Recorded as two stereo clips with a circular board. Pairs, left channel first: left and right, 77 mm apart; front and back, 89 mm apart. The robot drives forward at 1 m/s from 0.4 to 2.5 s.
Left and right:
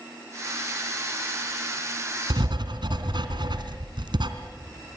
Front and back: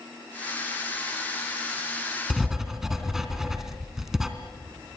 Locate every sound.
2.3 s writing: 90° right, 2.5 m; by 4.3 s 95° right, 2.5 m